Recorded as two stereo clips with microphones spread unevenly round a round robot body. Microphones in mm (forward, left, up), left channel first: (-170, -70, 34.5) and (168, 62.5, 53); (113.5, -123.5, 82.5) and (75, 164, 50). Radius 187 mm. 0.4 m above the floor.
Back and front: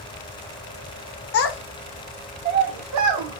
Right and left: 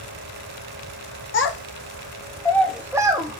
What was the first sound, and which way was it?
A child speaking, 125° right.